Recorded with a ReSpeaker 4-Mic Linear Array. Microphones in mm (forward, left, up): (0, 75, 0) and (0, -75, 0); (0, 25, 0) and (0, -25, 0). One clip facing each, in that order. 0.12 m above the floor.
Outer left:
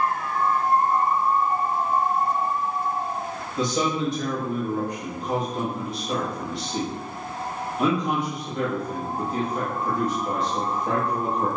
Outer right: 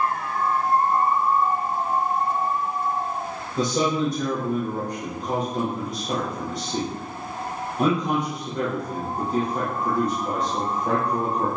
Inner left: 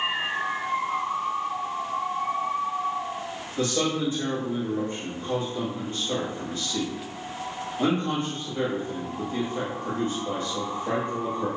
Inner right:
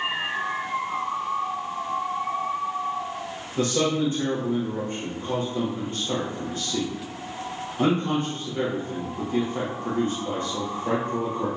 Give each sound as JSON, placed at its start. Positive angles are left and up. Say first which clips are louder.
{"t": 3.6, "sound": "a man speaking", "louder": "outer right 2 dB, inner right 3 dB", "side_deg": -40, "distance_m": 3.5}